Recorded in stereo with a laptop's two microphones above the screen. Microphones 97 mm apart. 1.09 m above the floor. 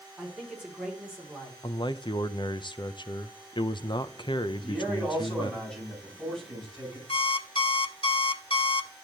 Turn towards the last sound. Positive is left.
turn(degrees=70)  # may be behind; listen again after turning